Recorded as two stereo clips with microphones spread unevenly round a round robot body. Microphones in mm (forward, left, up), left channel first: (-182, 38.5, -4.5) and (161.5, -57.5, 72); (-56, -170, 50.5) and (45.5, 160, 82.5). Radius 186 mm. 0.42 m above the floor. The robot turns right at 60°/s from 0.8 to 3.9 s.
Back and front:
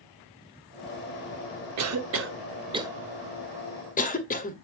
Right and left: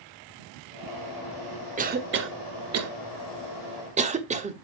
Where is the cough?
10° left, 1.2 m; by 4.5 s 140° left, 1.2 m.